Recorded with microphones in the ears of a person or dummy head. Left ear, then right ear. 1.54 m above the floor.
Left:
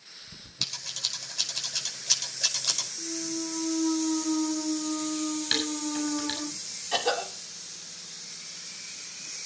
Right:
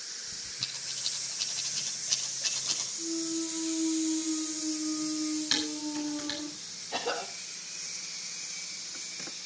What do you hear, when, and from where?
0.6 s scissors: 85° left, 5.5 m
3.0 s a clunk: 55° left (ahead or behind), 1.4 m
5.5 s dishes clattering: 15° left (ahead or behind), 7.5 m
6.9 s a cough: 70° left (ahead or behind), 5 m